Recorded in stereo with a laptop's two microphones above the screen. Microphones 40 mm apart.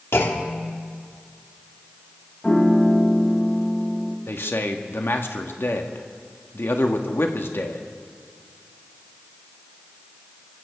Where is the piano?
30° left (ahead or behind), 1.4 m.